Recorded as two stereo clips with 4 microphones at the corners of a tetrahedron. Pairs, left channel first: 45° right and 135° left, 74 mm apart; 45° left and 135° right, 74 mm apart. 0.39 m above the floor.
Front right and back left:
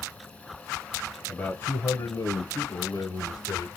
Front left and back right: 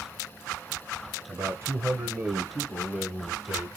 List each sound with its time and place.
1.3 s a man speaking: 105° right, 1.4 m; by 3.7 s 45° right, 2 m